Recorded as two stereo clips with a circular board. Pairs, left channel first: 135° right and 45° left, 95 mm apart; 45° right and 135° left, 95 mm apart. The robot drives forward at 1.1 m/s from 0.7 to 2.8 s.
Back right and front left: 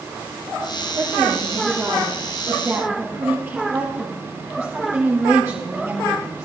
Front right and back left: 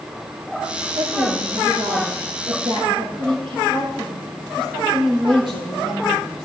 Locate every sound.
0.9 s a woman speaking: 110° left, 7 m; by 6.5 s 120° left, 8 m